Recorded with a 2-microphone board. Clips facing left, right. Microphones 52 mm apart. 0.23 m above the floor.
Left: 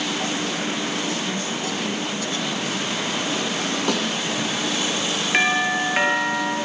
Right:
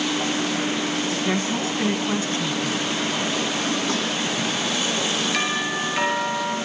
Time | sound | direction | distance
1.2 | a woman speaking | 35° right (ahead or behind) | 2.5 m
3.9 | a snare drum | 70° left (ahead or behind) | 7 m
5.3 | a doorbell | 35° left (ahead or behind) | 4.5 m